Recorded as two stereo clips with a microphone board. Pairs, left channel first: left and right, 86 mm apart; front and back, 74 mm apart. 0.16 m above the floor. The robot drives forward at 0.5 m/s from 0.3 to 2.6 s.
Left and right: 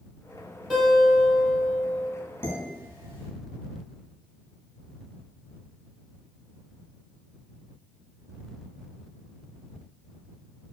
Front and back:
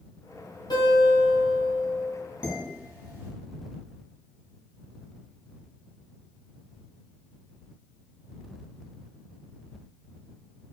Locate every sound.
0.7 s a guitar: straight ahead, 1.4 m
2.4 s dishes clattering: 120° left, 0.9 m; by 3.3 s 125° left, 0.9 m